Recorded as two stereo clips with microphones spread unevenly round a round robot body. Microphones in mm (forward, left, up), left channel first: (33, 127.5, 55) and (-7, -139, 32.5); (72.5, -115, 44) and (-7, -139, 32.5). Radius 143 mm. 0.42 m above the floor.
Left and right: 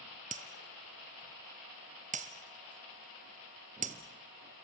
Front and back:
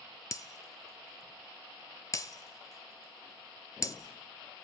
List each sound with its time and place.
0.3 s breaking glass: 35° right, 1.4 m